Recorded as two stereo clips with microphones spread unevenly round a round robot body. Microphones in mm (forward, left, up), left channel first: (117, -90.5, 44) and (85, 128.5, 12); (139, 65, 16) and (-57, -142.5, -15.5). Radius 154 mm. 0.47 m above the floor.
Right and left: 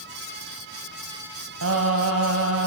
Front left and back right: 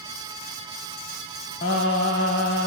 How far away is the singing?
About 1.8 m.